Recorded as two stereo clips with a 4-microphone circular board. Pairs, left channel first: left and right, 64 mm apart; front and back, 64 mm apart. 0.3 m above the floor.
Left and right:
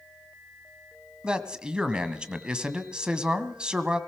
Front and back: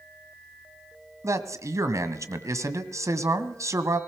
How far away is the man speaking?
About 1.6 m.